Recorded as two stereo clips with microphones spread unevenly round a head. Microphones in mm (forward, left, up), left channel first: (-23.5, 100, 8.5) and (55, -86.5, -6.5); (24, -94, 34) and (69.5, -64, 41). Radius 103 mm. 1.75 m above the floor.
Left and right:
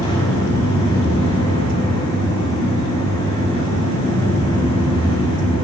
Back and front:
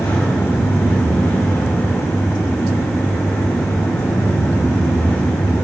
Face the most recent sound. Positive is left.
turn(degrees=175)